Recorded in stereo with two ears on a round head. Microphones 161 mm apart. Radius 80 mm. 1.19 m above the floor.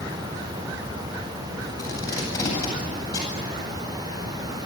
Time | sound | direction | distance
1.8 | tape being pulled | 20° left (ahead or behind) | 9 m